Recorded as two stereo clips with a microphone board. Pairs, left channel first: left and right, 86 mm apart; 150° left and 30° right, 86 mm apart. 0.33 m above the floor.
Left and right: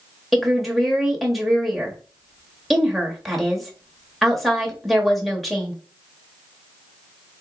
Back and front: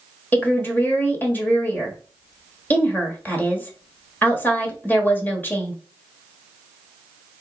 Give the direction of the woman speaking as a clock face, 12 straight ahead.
6 o'clock.